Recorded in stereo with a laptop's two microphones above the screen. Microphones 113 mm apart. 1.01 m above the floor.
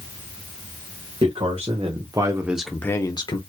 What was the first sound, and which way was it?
A man speaking, 65° right (ahead or behind).